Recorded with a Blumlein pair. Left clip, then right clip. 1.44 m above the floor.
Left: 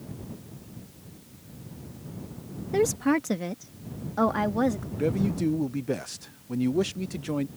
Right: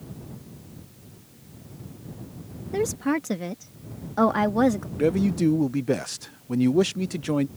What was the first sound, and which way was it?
A woman speaking, 5° left.